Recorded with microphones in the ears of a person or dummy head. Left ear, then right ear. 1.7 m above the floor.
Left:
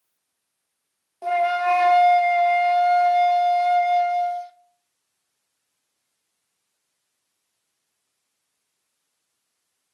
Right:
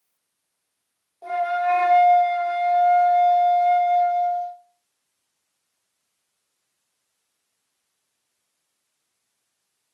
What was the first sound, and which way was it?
A flute, 50° left (ahead or behind).